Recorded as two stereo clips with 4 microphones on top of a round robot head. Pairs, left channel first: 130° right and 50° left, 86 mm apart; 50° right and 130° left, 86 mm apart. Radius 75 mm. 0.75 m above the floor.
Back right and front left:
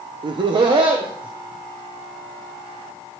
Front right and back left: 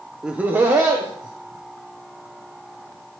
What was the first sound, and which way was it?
Laughter, 50° left.